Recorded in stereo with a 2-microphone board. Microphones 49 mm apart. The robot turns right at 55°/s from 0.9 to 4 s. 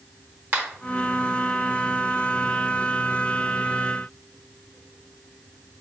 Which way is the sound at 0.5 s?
40° right (ahead or behind).